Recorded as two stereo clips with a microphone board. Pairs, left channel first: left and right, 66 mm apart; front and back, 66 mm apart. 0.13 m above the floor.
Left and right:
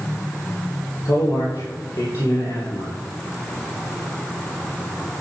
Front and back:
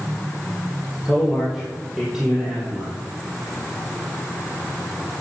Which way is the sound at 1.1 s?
95° left.